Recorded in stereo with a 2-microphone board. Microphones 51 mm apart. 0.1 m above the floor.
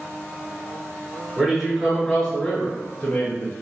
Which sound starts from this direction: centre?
A man speaking, at 1.4 s.